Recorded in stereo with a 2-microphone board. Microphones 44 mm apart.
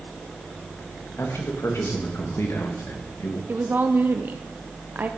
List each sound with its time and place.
1.2 s a man speaking: 80° left, 3 m; by 3.4 s 75° left (ahead or behind), 2.5 m
3.5 s a woman speaking: 45° right (ahead or behind), 0.7 m